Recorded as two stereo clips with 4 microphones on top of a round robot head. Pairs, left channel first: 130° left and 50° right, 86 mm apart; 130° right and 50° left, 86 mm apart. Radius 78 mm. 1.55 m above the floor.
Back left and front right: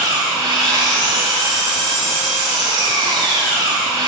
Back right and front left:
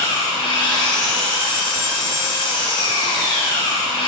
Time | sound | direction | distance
0.0 | an engine running | 95° right | 1.9 m